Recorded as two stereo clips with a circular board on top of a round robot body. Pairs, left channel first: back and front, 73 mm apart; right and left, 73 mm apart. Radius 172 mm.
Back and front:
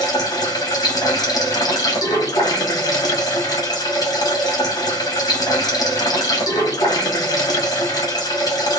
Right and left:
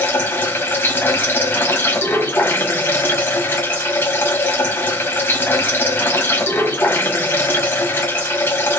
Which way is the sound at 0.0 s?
150° right.